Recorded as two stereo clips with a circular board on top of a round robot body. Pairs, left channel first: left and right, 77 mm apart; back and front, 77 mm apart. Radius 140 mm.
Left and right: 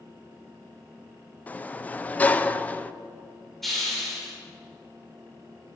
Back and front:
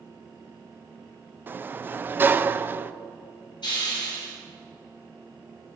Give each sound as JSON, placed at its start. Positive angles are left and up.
{"t": 1.5, "sound": "a sliding door", "azimuth_deg": 40, "distance_m": 0.6}
{"t": 3.6, "sound": "a hiss", "azimuth_deg": 180, "distance_m": 5.0}